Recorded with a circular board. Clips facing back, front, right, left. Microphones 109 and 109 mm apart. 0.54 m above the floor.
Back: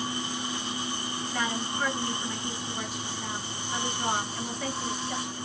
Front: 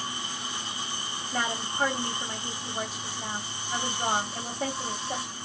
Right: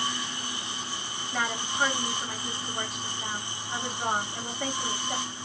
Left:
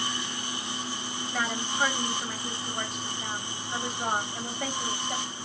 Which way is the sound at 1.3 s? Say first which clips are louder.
Front 2 dB, right 1 dB; 5° right.